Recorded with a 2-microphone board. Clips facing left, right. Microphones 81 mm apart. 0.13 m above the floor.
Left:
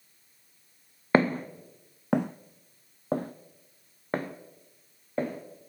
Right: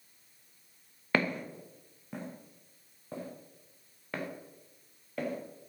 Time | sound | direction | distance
1.1 | footsteps | 35° left (ahead or behind) | 0.7 m